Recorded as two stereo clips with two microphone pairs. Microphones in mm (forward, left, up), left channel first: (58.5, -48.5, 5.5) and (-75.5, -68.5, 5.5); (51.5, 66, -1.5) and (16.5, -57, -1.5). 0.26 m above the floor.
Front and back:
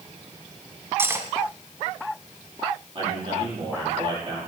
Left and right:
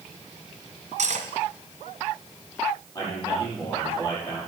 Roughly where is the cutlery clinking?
Right.